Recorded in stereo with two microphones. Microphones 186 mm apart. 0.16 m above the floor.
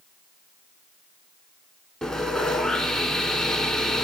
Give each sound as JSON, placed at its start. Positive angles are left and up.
{"t": 2.0, "sound": "sawing", "side_deg": 5, "distance_m": 0.8}